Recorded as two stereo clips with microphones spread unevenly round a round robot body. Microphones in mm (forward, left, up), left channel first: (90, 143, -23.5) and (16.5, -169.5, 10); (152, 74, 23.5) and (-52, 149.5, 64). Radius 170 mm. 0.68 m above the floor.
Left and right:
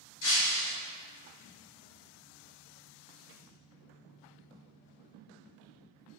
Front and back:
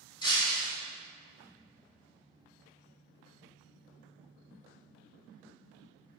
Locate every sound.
0.2 s breaking glass: 50° left, 2 m